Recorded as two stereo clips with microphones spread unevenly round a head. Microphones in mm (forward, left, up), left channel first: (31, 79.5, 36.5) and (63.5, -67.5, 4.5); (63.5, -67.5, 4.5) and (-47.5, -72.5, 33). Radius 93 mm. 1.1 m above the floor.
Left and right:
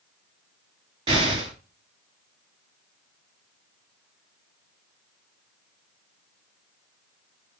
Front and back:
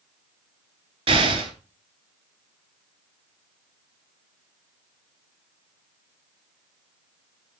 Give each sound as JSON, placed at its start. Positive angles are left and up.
{"t": 1.1, "sound": "an explosion", "azimuth_deg": -150, "distance_m": 3.5}